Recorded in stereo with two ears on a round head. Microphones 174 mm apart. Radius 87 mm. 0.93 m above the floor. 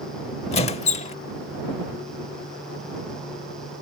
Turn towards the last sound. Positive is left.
turn(degrees=35)  # may be behind; listen again after turning